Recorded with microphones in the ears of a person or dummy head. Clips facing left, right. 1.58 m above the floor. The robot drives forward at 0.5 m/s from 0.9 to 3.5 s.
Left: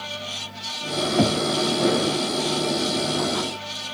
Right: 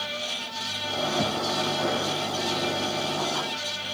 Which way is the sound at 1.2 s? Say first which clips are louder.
Left 10 dB; 45° left (ahead or behind).